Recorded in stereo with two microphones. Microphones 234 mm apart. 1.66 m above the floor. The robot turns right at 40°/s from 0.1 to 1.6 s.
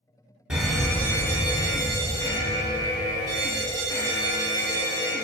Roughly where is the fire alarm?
Centre.